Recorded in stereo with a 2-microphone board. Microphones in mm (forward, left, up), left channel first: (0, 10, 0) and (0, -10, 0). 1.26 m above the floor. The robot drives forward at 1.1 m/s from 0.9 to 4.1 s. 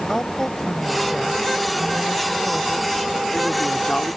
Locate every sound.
0.1 s a woman speaking: 25° left (ahead or behind); by 4.2 s 50° left (ahead or behind)